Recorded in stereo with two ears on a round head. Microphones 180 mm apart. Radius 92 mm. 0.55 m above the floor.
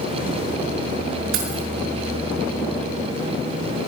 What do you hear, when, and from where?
1.3 s keys jangling: 75° right (ahead or behind), 5.5 m